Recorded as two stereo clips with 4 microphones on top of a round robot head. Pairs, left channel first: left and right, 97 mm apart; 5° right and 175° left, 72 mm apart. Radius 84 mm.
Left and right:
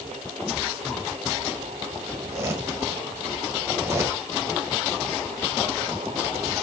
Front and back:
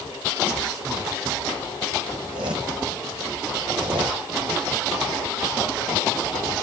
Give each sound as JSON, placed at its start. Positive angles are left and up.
{"t": 2.1, "sound": "a zipper", "azimuth_deg": -145, "distance_m": 1.3}